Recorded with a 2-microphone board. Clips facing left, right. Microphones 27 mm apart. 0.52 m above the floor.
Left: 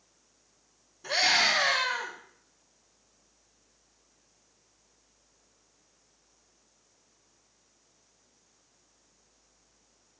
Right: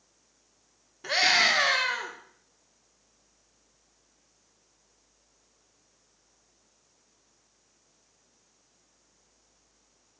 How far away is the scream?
About 0.9 m.